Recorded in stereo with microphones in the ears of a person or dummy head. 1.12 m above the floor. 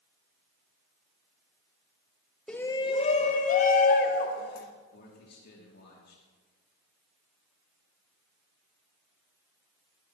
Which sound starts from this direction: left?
A man speaking, at 4.9 s.